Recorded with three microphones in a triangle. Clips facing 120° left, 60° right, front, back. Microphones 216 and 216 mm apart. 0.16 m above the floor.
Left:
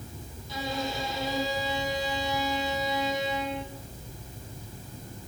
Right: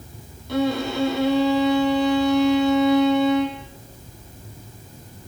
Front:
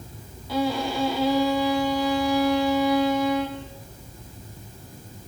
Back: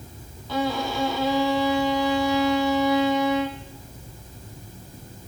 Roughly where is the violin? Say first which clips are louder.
Right 11 dB, front 1 dB; right.